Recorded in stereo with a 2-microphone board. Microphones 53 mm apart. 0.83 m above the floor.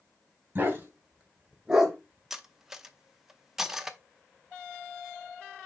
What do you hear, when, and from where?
0.6 s a dog barking: 35° right (ahead or behind), 2.5 m; by 2.0 s 5° right (ahead or behind), 1.3 m
2.3 s cutlery clinking: 5° right (ahead or behind), 0.7 m